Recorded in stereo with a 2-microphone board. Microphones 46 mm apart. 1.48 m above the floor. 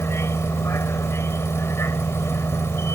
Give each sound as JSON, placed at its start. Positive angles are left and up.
{"t": 0.0, "sound": "a vehicle", "side_deg": 75}